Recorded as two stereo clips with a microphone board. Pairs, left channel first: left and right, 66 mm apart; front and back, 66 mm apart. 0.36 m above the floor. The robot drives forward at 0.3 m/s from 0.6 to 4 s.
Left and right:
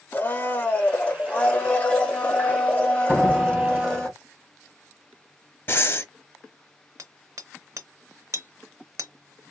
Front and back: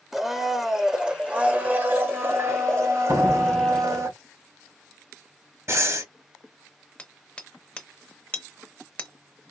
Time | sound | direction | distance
0.1 | a blender | 105° left | 0.7 m
3.1 | a door slam | 160° right | 2.0 m
5.7 | breathing | 140° left | 0.7 m
7.0 | hammering | 70° right | 0.8 m